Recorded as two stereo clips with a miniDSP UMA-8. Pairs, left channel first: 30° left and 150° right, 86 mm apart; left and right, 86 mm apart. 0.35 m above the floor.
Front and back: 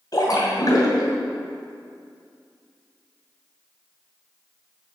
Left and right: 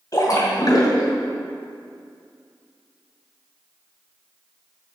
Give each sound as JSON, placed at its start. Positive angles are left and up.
{"t": 0.1, "sound": "a splash", "azimuth_deg": 55, "distance_m": 2.5}